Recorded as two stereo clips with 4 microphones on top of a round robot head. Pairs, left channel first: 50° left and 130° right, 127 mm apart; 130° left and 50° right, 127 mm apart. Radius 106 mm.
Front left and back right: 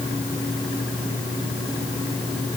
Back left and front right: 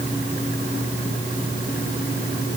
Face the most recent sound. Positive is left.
No sound to turn to.